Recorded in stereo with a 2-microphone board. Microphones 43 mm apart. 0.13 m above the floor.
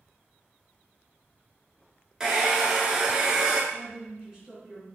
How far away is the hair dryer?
About 0.5 m.